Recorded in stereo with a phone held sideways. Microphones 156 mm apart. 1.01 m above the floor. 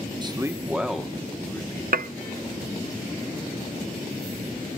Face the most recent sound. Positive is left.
turn(degrees=-70)  # may be behind; listen again after turning